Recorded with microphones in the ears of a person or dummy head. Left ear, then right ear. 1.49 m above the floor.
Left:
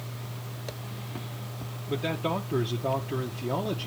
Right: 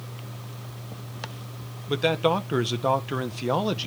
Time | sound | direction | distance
1.9 | a man speaking | 65° right (ahead or behind) | 0.9 m